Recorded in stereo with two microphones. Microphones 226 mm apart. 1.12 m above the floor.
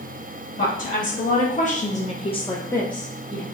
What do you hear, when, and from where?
0.6 s a woman speaking: 35° left (ahead or behind), 1.1 m; by 3.4 s 10° right (ahead or behind), 0.6 m